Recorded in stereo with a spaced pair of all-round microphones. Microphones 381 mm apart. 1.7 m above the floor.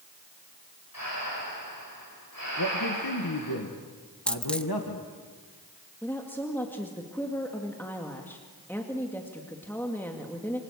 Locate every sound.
0.9 s breathing: 65° left (ahead or behind), 10 m
2.6 s a man speaking: 75° left (ahead or behind), 2.0 m
4.3 s a dropped coin: 5° left (ahead or behind), 1.0 m
6.0 s a woman speaking: 5° left (ahead or behind), 2 m